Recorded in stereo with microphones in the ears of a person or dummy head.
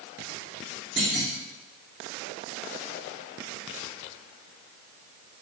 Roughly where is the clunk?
Centre.